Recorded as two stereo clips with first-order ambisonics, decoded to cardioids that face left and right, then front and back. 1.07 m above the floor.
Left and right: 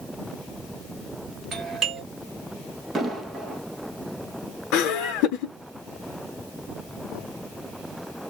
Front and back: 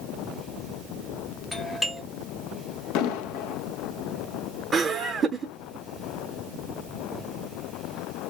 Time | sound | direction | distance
1.5 | a doorbell | 80° right | 1.1 m
3.0 | an explosion | 15° right | 0.8 m
4.7 | laughter | 115° left | 0.6 m